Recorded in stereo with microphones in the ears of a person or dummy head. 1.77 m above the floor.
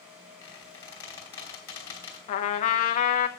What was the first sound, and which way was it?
A squeak, 15° left (ahead or behind).